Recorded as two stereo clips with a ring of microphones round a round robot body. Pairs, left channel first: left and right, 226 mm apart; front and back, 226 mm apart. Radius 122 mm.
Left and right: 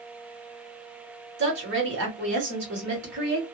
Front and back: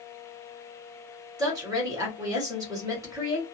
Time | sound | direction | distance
1.4 | a woman speaking | 110° right | 1.6 m